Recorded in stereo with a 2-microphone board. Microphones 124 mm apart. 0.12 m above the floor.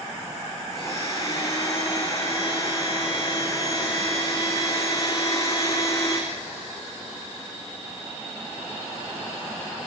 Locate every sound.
0.7 s a blender: 25° left (ahead or behind), 6 m